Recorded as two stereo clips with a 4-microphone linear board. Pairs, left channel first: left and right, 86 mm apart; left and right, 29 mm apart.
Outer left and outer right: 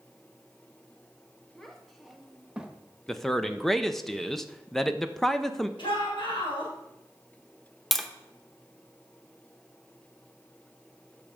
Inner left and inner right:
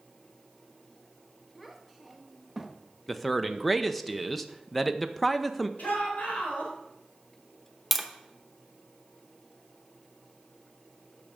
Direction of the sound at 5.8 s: 75° left (ahead or behind).